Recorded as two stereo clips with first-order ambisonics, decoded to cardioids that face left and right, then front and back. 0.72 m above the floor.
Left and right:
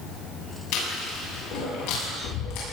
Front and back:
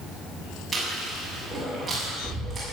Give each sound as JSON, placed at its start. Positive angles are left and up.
{"t": 0.7, "sound": "chewing", "azimuth_deg": 100, "distance_m": 7.0}